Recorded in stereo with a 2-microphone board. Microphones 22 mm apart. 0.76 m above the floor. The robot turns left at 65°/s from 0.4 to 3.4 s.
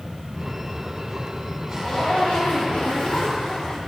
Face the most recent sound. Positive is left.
turn(degrees=45)